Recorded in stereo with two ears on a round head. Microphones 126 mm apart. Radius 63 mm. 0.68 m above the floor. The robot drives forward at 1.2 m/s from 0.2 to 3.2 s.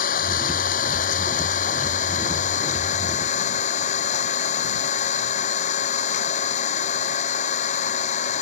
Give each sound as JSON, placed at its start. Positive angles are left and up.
{"t": 0.0, "sound": "an engine running", "side_deg": 70}